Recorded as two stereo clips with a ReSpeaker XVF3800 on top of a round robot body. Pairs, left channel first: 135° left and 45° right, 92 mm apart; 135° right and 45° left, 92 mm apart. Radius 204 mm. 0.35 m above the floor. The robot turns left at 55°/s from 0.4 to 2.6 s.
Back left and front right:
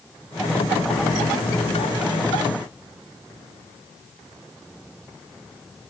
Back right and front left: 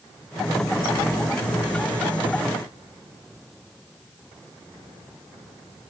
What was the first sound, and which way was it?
Only background noise.